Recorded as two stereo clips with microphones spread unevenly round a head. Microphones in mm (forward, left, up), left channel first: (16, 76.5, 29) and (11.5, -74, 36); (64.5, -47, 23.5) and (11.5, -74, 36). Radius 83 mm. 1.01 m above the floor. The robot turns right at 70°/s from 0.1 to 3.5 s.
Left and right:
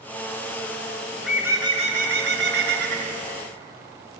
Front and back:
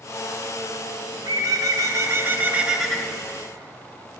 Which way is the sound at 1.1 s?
170° left.